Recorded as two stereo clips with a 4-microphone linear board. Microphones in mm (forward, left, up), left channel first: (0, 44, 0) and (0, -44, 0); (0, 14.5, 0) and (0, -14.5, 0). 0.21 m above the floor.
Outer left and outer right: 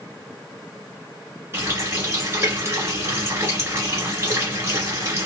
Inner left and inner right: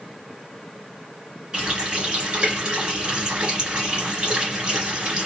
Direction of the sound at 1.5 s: 30° right (ahead or behind).